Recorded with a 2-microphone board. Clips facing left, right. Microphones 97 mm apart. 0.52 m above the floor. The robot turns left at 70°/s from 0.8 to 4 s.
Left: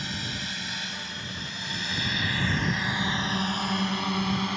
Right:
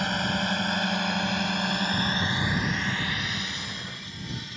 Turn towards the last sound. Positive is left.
turn(degrees=70)  # may be behind; listen again after turning